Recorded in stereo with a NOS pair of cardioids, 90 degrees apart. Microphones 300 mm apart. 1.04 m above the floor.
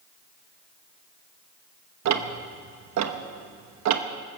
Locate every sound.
2.0 s ticking: 65° right, 1.2 m